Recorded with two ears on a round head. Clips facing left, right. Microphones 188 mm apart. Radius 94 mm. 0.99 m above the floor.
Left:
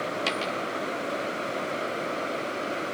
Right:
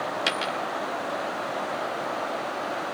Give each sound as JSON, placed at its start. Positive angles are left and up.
{"t": 0.3, "sound": "a dropped coin", "side_deg": -15, "distance_m": 0.6}